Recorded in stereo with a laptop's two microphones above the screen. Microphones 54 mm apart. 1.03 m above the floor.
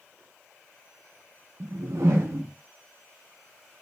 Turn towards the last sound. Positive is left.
turn(degrees=-55)  # may be behind; listen again after turning